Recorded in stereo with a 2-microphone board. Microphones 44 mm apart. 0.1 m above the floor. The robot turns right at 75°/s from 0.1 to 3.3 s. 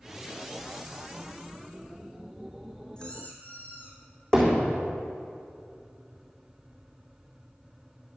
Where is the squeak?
20° left (ahead or behind), 2.5 m; by 4.0 s 45° left (ahead or behind), 2.5 m.